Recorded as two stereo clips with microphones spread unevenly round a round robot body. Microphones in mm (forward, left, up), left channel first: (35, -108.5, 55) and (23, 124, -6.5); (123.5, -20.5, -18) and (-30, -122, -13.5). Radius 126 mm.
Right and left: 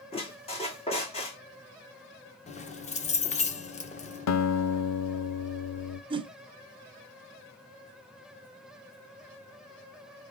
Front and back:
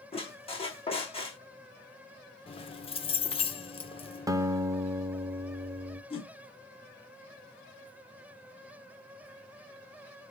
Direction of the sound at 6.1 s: 75° left.